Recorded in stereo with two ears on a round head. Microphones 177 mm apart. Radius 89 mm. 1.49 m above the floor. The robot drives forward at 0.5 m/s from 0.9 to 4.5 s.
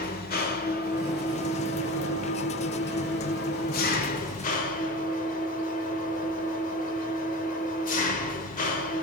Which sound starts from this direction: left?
An engine running, at 0.0 s.